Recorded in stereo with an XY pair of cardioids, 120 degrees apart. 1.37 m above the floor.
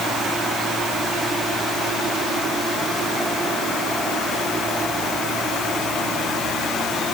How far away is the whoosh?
I don't hear a whoosh.